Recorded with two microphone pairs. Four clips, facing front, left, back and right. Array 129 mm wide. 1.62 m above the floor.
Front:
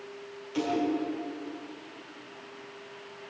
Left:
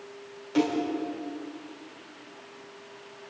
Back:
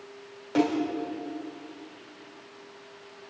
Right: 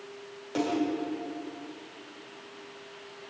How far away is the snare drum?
About 6 m.